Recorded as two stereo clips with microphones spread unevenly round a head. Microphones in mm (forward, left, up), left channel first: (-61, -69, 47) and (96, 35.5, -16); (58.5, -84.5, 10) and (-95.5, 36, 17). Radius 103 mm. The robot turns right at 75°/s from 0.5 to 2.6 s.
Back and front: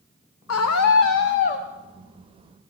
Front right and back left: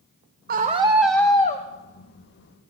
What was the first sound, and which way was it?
A scream, 175° right.